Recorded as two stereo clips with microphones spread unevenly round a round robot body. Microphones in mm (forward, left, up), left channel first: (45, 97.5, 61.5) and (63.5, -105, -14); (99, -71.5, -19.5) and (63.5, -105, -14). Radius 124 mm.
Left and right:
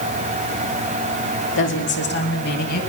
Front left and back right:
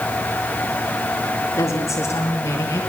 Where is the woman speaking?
65° left, 3 m; by 2.8 s 50° left, 4 m.